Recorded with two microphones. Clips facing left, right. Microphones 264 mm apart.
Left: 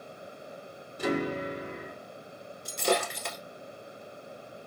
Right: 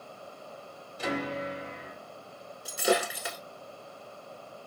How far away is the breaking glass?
About 1.0 m.